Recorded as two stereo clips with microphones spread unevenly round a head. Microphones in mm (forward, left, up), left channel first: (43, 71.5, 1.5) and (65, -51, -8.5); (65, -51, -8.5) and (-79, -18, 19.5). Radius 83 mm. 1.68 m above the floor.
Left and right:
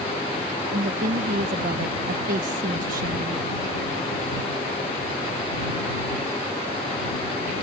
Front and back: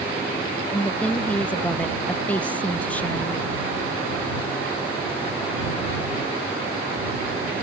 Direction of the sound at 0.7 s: 100° right.